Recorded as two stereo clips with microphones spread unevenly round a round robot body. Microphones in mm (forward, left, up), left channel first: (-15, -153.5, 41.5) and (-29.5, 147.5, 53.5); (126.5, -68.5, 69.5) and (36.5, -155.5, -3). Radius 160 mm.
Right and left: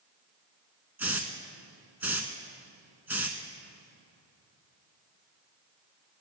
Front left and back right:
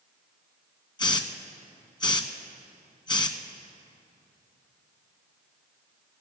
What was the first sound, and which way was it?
A hiss, 10° left.